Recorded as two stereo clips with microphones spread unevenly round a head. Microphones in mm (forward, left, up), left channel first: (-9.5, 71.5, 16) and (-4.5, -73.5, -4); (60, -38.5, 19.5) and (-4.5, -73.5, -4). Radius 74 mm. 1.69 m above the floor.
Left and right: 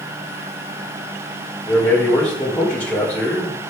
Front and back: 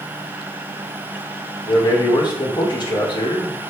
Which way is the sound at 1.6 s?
10° left.